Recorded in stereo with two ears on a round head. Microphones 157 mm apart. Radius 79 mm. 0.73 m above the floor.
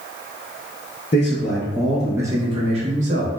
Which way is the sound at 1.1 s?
35° left (ahead or behind).